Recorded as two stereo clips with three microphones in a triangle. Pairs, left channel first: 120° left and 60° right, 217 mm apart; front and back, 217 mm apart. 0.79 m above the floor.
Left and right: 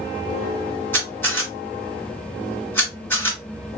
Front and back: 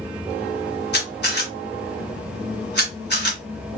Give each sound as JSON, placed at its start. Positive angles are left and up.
{"t": 0.9, "sound": "a camera shutter", "azimuth_deg": 40, "distance_m": 2.0}